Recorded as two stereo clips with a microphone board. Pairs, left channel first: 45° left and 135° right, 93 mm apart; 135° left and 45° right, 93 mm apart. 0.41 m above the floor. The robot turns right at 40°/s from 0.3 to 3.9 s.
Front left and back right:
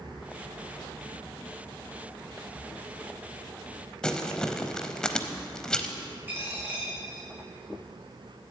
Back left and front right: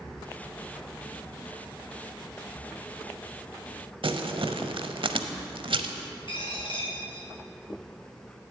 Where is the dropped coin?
160° left, 2.5 m.